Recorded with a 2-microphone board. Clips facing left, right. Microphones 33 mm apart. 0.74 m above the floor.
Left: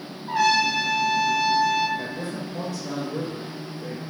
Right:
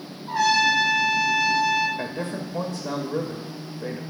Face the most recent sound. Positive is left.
turn(degrees=-50)  # may be behind; listen again after turning